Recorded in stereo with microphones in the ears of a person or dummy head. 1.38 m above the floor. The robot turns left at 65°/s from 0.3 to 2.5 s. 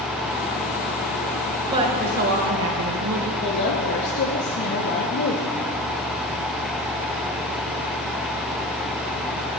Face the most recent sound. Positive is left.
turn(degrees=60)  # may be behind; listen again after turning